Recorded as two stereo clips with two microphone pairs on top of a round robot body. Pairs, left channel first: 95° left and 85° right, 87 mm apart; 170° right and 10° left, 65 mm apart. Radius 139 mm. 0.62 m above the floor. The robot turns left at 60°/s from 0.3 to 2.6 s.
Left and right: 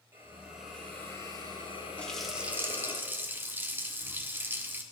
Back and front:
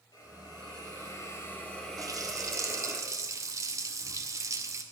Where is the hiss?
150° right, 5.5 m; by 3.0 s 70° left, 5.5 m.